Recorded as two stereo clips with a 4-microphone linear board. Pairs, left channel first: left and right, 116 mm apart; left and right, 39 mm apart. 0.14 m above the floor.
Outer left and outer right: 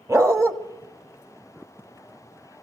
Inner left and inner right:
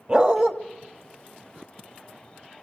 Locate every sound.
0.1 s a dog barking: 25° right (ahead or behind), 1.5 m